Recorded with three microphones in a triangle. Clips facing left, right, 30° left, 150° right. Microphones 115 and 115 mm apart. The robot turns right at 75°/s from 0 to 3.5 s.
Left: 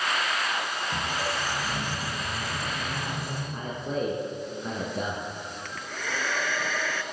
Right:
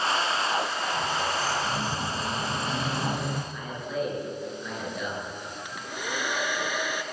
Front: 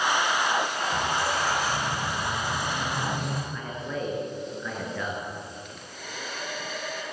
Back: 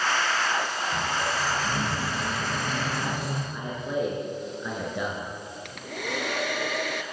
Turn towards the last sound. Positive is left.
turn(degrees=-165)